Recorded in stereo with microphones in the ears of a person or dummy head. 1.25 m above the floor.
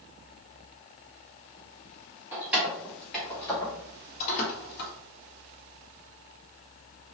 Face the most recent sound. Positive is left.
turn(degrees=65)  # may be behind; listen again after turning